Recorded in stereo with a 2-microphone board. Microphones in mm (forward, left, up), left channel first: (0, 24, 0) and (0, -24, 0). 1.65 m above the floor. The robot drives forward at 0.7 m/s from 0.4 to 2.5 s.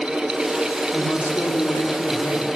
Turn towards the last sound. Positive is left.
turn(degrees=80)